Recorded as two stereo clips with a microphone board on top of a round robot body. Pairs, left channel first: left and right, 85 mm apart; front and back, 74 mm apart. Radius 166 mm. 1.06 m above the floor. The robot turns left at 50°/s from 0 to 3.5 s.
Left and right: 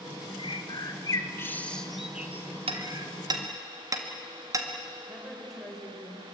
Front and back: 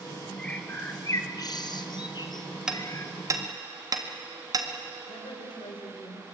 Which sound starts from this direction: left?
A bird, at 0.4 s.